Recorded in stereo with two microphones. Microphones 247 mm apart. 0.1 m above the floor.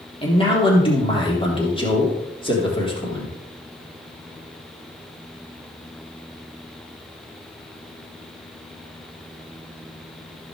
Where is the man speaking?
20° left (ahead or behind), 3.5 m.